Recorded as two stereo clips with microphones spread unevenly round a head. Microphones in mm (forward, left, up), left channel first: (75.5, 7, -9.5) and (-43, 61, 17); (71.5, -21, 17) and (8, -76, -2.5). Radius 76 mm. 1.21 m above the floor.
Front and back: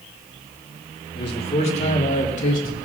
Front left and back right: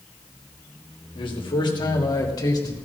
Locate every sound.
1.1 s a man speaking: 20° left, 2.5 m; by 2.8 s 5° right, 3.5 m